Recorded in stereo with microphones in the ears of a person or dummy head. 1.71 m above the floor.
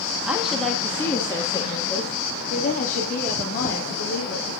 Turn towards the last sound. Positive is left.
turn(degrees=55)  # may be behind; listen again after turning